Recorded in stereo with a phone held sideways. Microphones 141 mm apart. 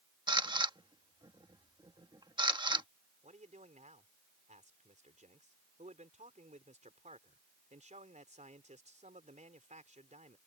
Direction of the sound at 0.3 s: 30° right (ahead or behind).